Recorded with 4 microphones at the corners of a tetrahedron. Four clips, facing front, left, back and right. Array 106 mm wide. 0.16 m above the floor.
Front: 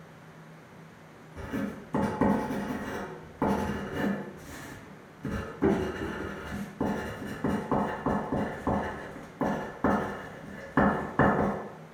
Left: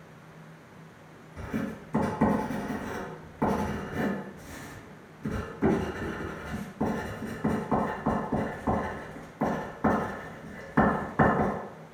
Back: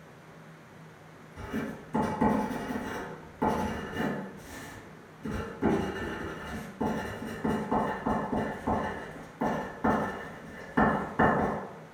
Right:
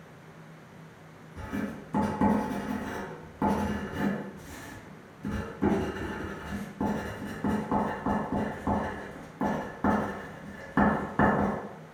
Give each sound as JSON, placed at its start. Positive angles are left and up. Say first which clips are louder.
{"t": 1.4, "sound": "writing", "louder": "left 1 dB, front 1 dB", "azimuth_deg": -40, "distance_m": 1.5}